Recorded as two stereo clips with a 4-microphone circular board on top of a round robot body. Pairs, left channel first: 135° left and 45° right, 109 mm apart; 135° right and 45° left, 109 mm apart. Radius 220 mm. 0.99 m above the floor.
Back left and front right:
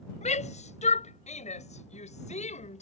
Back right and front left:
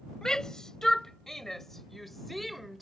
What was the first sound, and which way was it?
A shout, 140° left.